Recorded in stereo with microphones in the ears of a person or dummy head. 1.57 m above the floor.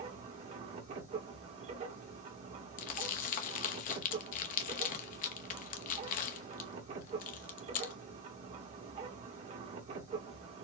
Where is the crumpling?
45° left (ahead or behind), 0.8 m.